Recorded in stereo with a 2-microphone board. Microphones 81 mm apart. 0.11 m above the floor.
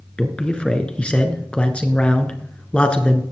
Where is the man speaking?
15° left (ahead or behind), 1.4 m.